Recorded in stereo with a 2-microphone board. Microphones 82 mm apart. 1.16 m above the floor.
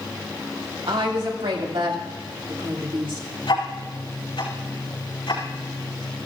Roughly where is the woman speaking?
Right.